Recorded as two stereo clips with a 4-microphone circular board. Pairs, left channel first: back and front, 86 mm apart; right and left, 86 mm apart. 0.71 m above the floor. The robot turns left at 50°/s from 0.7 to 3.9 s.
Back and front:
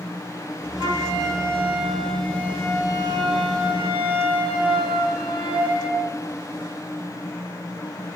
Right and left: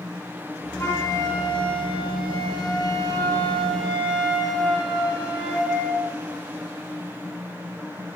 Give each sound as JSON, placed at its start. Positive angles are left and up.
{"t": 0.8, "sound": "a flute", "azimuth_deg": -30, "distance_m": 6.0}